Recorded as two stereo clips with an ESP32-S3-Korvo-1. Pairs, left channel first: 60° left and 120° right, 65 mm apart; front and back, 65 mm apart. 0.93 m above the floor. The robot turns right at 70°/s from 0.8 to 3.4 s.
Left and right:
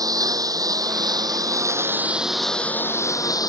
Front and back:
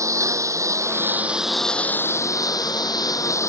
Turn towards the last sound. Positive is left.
turn(degrees=40)